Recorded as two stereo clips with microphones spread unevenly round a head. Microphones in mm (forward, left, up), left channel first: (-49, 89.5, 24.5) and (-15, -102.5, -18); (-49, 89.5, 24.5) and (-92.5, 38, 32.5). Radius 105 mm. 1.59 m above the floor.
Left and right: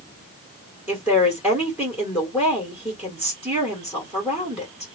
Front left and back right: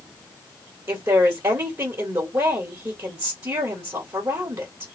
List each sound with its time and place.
0.9 s a woman speaking: 170° right, 1.6 m